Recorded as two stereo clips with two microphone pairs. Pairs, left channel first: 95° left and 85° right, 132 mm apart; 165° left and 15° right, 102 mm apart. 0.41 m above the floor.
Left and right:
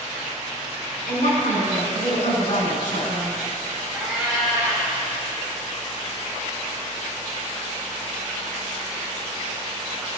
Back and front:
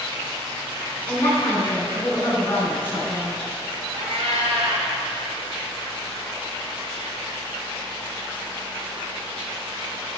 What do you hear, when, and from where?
1.1 s a woman speaking: 105° left, 3 m
3.9 s a cat meowing: straight ahead, 2 m